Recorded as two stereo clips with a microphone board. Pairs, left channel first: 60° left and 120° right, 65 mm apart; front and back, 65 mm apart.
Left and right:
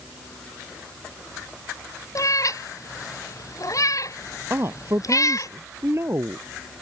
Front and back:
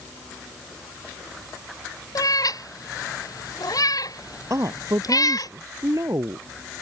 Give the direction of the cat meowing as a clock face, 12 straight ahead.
11 o'clock.